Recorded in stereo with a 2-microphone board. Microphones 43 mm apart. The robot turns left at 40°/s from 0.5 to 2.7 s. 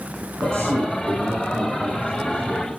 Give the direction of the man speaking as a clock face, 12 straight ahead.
3 o'clock.